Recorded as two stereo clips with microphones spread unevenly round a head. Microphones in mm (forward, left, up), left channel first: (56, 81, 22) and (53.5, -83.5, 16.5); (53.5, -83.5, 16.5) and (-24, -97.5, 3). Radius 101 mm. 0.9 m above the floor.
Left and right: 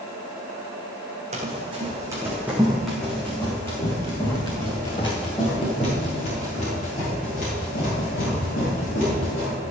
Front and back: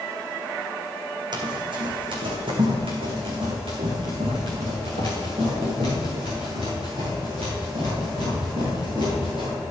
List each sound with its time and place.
1.3 s running footsteps: 150° right, 2 m; by 9.5 s 140° left, 7 m